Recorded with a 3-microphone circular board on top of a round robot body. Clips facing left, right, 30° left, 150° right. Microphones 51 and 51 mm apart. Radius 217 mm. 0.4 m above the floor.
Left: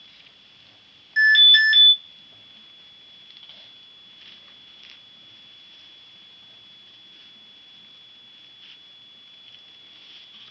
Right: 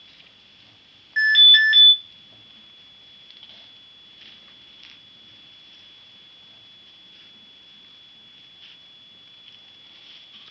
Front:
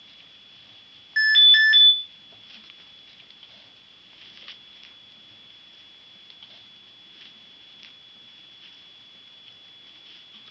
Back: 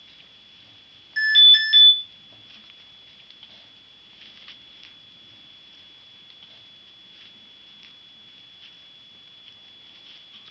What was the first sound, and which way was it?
An alarm, 20° right.